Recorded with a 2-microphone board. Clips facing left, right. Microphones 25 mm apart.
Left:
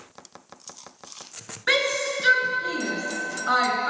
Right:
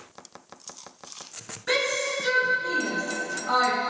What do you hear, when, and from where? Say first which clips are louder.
1.7 s a shout: left 3 dB; 50° left (ahead or behind), 2.5 m